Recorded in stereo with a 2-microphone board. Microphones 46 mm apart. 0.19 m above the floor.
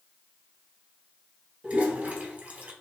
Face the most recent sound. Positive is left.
turn(degrees=-30)  # may be behind; listen again after turning